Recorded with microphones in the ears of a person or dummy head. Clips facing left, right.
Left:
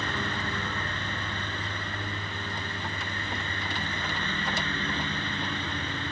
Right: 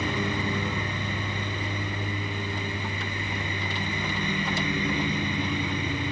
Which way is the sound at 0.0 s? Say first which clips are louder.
Right 5 dB; 15° right (ahead or behind).